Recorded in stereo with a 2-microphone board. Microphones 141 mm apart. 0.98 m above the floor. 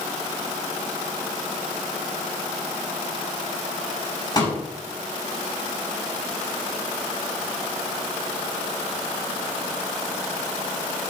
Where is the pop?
30° left (ahead or behind), 7.5 m.